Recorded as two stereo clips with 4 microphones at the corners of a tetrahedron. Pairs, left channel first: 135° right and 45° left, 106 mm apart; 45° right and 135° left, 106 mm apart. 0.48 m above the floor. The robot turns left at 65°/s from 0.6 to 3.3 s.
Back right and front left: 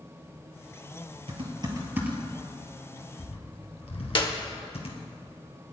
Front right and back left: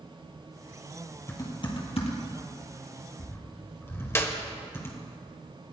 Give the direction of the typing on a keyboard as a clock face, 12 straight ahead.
11 o'clock.